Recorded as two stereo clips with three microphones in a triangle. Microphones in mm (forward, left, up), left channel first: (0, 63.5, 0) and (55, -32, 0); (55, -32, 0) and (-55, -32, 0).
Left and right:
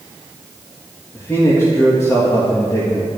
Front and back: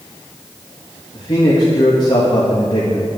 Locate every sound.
1.1 s a man speaking: 50° left, 2.5 m